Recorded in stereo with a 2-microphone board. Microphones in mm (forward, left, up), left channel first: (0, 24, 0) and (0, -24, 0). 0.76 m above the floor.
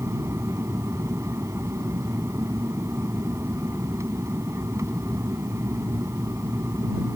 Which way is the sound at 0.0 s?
75° right (ahead or behind).